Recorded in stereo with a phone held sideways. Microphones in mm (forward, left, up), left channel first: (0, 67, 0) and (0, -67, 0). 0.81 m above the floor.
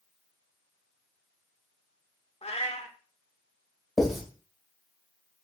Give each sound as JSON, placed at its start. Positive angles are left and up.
{"t": 2.4, "sound": "a cat meowing", "side_deg": 50, "distance_m": 0.7}
{"t": 4.0, "sound": "writing", "side_deg": 0, "distance_m": 2.5}